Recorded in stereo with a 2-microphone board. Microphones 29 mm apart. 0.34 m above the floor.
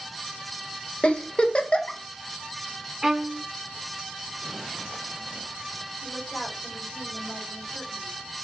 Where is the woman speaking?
80° left, 5.5 m.